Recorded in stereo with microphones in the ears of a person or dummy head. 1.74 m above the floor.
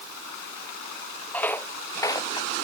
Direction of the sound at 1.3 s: 10° left (ahead or behind).